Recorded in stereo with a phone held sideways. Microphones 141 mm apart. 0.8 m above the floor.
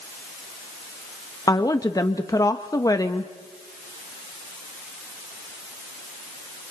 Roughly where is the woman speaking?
Left.